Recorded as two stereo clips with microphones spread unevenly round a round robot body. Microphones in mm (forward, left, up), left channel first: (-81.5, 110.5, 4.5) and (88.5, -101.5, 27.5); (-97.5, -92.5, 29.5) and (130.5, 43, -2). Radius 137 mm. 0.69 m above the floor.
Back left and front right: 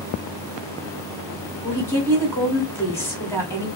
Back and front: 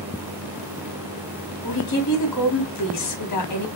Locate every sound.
1.6 s a woman speaking: 150° right, 2.5 m